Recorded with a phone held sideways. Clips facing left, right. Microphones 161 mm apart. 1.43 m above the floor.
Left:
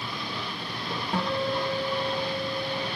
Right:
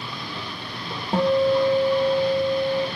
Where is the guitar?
30° right (ahead or behind), 0.7 m.